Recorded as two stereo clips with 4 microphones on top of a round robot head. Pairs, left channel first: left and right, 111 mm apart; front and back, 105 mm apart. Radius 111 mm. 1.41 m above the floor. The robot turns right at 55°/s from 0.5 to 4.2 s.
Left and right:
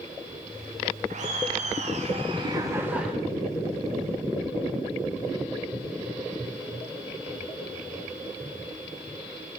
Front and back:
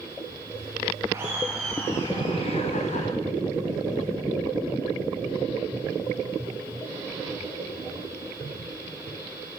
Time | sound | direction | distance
1.1 | laughter | 110° right | 5 m